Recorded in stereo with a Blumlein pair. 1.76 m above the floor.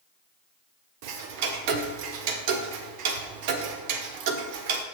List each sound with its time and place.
1.0 s ticking: 45° right, 1.2 m